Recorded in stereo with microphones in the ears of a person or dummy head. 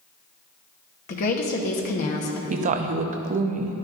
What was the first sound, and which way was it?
A woman speaking, 50° left (ahead or behind).